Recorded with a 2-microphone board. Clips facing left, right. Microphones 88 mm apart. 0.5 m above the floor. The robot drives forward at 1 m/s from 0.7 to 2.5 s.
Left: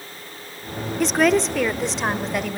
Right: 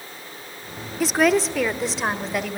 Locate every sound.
1.0 s a woman speaking: 5° right (ahead or behind), 0.8 m; by 2.6 s centre (ahead or behind), 2 m